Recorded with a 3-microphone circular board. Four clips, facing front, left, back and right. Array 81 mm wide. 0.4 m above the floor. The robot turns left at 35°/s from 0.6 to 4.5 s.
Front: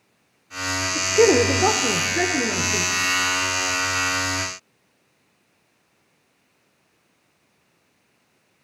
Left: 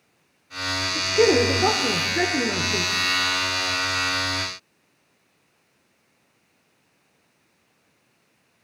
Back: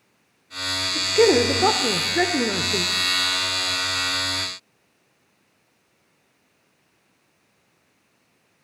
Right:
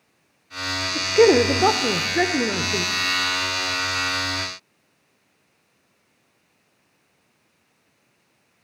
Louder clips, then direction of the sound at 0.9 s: Right 4 dB, front 1 dB; 80° right.